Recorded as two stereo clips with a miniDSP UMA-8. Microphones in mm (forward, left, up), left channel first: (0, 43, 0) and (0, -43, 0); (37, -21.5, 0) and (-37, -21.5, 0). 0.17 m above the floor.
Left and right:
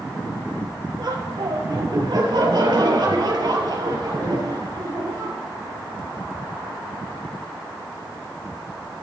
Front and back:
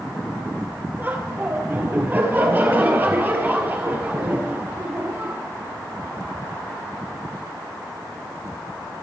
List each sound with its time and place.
1.0 s laughter: 120° right, 4.5 m